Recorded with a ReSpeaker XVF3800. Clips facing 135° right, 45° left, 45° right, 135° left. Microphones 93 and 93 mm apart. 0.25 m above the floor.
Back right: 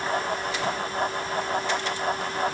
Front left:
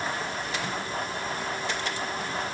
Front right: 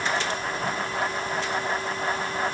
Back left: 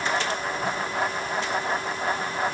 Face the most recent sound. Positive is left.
No sound to turn to.